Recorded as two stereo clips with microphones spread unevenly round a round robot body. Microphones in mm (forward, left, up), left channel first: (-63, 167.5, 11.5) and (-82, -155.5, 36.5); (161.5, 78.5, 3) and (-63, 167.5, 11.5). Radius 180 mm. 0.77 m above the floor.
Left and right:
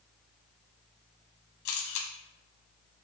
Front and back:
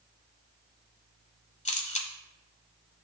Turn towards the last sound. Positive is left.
turn(degrees=40)